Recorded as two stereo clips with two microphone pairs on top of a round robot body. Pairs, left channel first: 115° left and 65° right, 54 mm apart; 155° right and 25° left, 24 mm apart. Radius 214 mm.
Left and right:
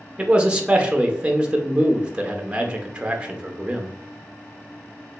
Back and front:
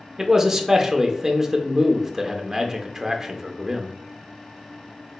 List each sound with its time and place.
0.2 s a man speaking: 20° right, 0.8 m